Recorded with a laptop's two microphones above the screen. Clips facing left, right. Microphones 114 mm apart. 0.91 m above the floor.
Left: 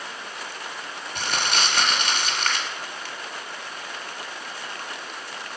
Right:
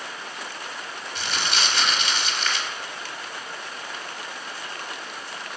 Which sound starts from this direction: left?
Crumpling, at 1.1 s.